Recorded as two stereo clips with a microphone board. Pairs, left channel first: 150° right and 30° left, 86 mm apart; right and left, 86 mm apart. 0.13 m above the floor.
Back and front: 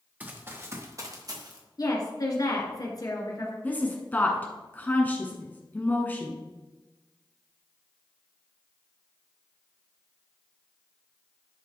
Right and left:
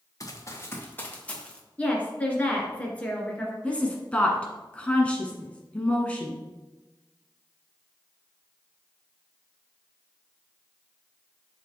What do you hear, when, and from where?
0.2 s running footsteps: 40° right, 1.8 m; by 1.6 s 10° right, 2.5 m
1.8 s a woman speaking: 155° right, 1.9 m
3.6 s a woman speaking: 130° right, 1.3 m